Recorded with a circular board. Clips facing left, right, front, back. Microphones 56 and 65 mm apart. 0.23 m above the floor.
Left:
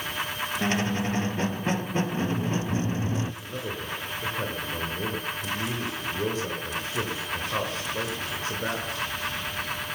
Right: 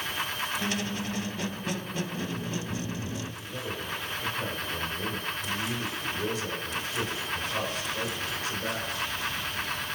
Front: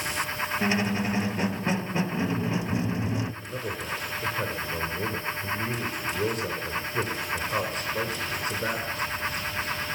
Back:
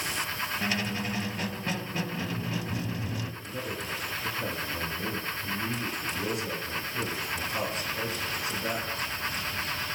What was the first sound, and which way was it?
A squeak, 55° left.